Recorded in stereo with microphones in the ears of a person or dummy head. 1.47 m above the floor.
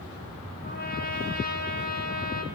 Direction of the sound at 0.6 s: 85° left.